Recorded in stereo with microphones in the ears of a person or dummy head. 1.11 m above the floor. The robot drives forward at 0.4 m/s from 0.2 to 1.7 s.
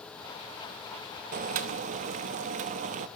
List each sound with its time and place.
1.3 s boiling: 45° right (ahead or behind), 0.5 m; by 3.1 s 40° right (ahead or behind), 0.6 m